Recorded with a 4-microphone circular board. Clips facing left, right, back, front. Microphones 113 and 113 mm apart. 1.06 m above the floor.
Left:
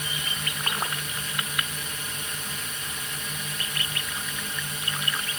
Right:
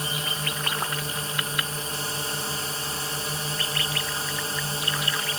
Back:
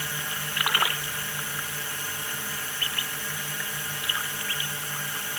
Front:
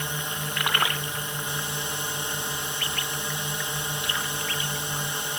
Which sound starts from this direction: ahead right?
A drone, at 0.0 s.